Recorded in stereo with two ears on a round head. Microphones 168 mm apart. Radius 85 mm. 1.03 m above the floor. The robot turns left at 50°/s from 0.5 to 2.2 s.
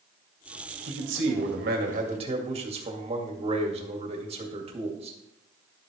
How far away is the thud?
I don't hear a thud.